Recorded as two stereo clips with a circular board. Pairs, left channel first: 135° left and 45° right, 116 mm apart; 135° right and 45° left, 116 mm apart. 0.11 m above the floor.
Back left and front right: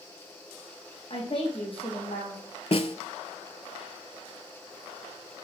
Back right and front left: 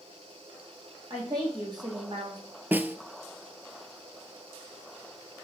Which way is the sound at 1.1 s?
100° left.